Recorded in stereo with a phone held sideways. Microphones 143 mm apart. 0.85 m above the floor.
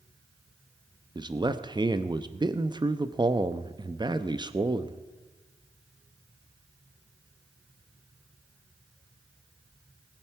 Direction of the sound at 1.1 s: 30° right (ahead or behind).